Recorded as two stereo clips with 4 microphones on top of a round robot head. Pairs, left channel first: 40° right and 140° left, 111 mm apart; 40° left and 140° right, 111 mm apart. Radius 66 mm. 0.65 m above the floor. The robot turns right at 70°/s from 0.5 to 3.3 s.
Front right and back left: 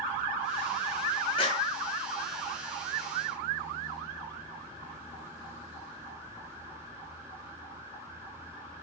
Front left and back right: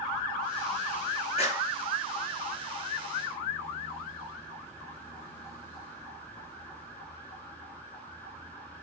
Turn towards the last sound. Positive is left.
turn(degrees=140)